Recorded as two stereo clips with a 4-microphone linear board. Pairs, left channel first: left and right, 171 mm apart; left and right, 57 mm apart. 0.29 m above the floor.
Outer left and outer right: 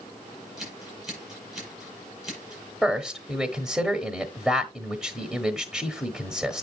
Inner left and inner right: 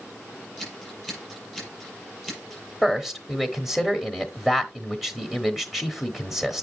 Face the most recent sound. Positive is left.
turn(degrees=-5)  # may be behind; listen again after turning